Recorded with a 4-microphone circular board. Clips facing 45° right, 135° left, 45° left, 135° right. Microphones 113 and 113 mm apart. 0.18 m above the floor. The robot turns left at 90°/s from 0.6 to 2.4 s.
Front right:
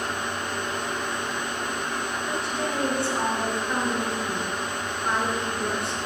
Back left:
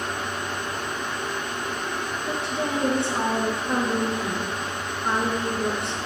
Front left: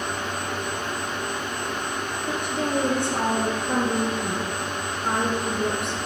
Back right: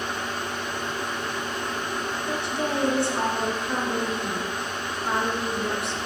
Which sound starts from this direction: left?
A woman speaking, at 2.3 s.